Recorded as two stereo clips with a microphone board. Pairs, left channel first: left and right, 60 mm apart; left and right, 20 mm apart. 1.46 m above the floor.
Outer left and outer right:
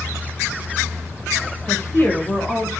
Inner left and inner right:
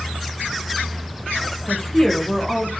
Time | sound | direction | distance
1.7 | a woman speaking | 50° left (ahead or behind) | 0.6 m